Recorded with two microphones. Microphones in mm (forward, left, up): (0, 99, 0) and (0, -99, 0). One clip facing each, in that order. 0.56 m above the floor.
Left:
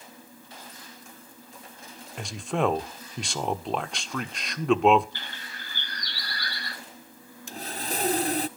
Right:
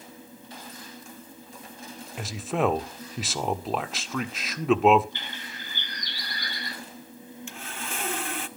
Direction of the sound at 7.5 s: 40° left (ahead or behind).